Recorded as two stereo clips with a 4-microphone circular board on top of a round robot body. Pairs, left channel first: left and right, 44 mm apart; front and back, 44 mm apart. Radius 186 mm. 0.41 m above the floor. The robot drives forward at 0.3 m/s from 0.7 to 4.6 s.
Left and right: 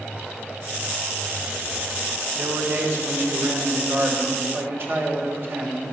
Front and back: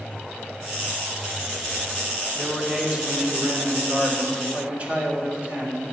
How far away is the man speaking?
About 2.5 m.